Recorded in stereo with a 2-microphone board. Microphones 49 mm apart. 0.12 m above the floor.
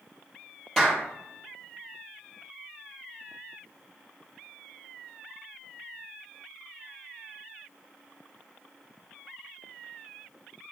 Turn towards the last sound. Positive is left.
turn(degrees=10)  # may be behind; listen again after turning